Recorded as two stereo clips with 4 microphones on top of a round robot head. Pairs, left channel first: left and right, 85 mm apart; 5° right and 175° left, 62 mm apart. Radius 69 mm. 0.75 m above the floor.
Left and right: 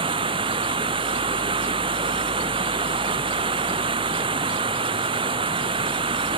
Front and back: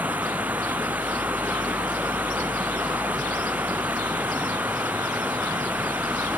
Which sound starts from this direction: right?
Running water, at 0.0 s.